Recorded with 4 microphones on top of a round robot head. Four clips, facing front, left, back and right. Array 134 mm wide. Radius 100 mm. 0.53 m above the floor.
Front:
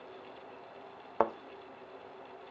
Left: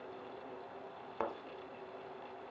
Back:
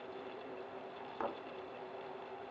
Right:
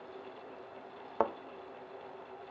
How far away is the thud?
About 0.7 m.